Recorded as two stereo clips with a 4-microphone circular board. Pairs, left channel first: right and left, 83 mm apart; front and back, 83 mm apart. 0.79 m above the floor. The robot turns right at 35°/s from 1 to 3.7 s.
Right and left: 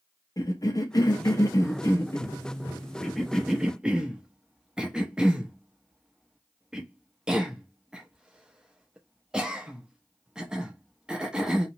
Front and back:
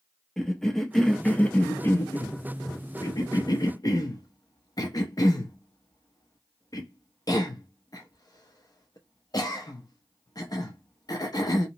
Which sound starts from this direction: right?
A cough, at 0.4 s.